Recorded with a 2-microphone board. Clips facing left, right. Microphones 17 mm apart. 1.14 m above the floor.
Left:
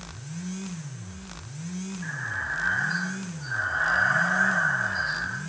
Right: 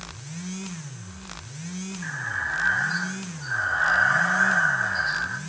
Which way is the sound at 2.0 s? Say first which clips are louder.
Right 3 dB; 15° right (ahead or behind).